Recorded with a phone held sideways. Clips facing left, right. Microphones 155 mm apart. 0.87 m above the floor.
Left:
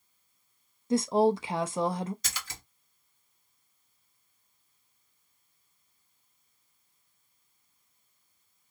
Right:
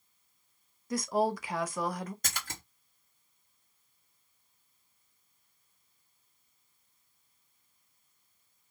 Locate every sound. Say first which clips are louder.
0.9 s a woman speaking: left 6 dB; 25° left (ahead or behind), 0.6 m
2.2 s a splash: right 1 dB; 55° right (ahead or behind), 1.2 m